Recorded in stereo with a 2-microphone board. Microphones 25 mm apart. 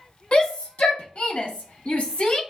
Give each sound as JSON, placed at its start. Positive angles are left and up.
{"t": 0.3, "sound": "a shout", "side_deg": 60, "distance_m": 1.5}